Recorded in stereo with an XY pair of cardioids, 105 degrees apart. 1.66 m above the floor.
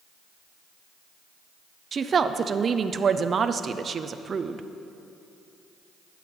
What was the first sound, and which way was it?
A woman speaking, 40° right.